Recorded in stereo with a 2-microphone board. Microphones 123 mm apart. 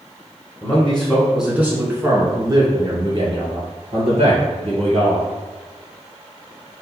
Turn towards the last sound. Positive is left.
turn(degrees=-60)  # may be behind; listen again after turning